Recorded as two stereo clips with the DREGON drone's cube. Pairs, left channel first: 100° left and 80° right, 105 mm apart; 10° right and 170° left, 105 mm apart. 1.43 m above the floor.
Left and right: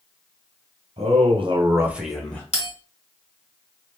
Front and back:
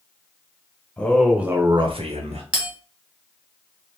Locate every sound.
1.0 s a man speaking: 85° right, 1.2 m; by 2.4 s 175° left, 1.2 m
2.5 s a bell: 90° left, 2.0 m